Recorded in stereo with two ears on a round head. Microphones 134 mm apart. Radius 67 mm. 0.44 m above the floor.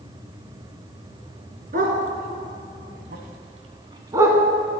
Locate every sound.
1.7 s a dog barking: 65° right (ahead or behind), 2.5 m; by 4.4 s 15° right (ahead or behind), 1.9 m